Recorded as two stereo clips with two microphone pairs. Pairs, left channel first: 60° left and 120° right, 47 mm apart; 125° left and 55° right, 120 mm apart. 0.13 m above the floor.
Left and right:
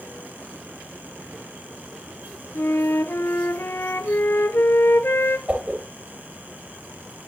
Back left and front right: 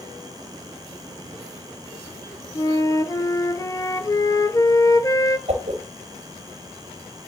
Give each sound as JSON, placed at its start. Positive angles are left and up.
{"t": 2.5, "sound": "a flute", "azimuth_deg": 70, "distance_m": 0.8}
{"t": 5.5, "sound": "a whoosh", "azimuth_deg": -65, "distance_m": 3.0}